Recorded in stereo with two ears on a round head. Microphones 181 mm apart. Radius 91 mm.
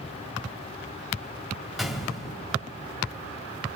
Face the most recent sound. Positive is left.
turn(degrees=0)  # may be behind; listen again after turning